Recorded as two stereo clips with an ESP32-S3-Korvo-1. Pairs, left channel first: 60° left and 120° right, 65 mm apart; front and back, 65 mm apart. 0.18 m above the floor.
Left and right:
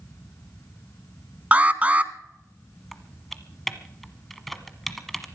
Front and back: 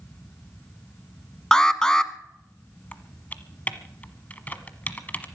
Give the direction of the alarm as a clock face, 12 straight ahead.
2 o'clock.